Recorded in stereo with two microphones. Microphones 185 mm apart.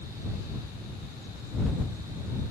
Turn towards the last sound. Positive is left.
No sound to turn to.